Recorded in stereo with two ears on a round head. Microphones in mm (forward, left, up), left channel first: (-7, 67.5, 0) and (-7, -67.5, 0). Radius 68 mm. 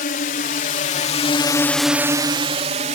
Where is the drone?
65° left (ahead or behind); by 3.0 s 50° right (ahead or behind).